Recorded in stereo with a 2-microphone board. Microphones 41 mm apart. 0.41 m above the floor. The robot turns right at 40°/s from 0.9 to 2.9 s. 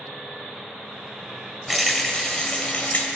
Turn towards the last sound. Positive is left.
turn(degrees=45)